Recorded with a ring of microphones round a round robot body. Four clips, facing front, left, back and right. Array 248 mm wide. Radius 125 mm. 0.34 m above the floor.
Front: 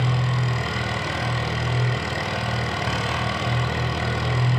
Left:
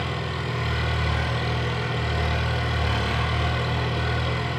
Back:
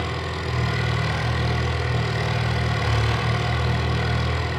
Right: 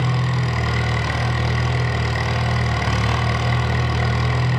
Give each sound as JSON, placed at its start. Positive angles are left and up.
{"t": 0.0, "sound": "an engine running", "azimuth_deg": -85, "distance_m": 2.0}